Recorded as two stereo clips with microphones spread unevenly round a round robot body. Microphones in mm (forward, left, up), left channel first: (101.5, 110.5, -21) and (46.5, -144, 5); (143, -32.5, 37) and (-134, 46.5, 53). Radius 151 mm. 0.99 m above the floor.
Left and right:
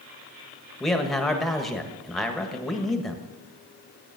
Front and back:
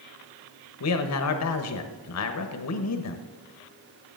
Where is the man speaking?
10° right, 1.3 m.